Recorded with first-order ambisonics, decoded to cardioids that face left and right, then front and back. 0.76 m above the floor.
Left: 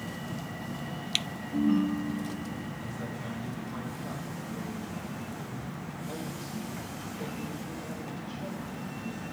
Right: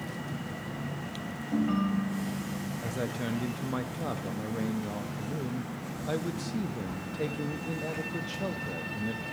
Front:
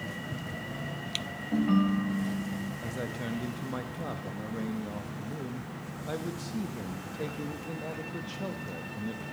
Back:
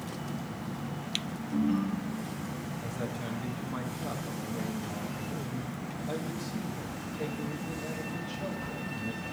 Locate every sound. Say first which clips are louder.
1.5 s a ringtone: left 2 dB, front 3 dB; 25° right, 1.4 m
2.8 s a man speaking: right 5 dB, front 1 dB; 65° right, 0.6 m